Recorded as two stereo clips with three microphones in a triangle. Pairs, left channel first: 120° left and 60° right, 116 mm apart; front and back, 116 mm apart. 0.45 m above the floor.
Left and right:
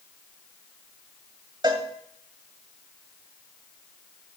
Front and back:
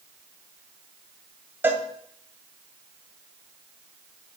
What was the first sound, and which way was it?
A cowbell, 110° right.